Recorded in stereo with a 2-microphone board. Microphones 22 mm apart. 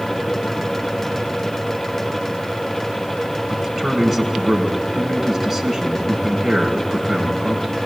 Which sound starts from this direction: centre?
A man speaking, at 3.5 s.